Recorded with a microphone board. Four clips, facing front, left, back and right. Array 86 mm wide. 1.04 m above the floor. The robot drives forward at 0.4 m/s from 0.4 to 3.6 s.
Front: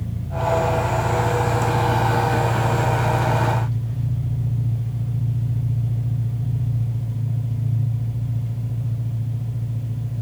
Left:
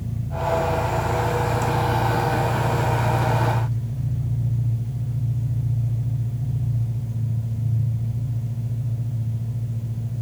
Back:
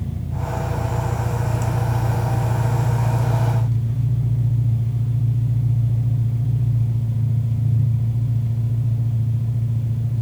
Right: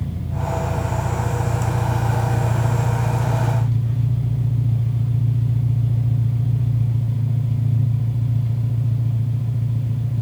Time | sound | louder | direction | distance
0.0 | an engine running | left 1 dB, front 5 dB | 90° right | 7 m